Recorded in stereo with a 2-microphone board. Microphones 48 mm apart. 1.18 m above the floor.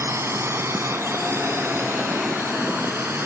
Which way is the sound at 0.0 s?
65° right (ahead or behind).